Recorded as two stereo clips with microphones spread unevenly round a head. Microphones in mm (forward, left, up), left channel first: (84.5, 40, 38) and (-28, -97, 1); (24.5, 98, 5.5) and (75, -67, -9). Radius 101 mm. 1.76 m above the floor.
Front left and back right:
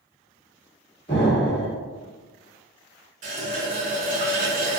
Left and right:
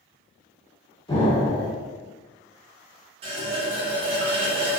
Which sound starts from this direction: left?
An explosion, at 1.1 s.